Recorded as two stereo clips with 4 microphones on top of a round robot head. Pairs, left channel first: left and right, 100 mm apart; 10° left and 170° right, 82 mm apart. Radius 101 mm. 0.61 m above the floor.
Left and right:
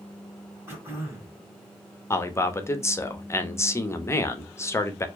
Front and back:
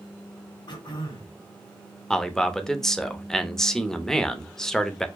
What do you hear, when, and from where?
0.7 s throat clearing: 25° right, 2.0 m
2.1 s a man speaking: 85° left, 0.8 m